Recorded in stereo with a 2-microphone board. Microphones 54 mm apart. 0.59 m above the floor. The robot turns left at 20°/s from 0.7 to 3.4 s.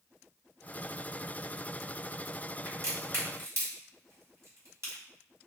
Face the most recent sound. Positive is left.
turn(degrees=-55)  # may be behind; listen again after turning